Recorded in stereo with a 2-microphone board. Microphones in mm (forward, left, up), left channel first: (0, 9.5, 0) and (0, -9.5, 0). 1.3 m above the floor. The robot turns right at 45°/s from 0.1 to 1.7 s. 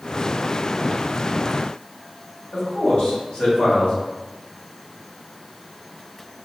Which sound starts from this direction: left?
A man speaking, at 2.5 s.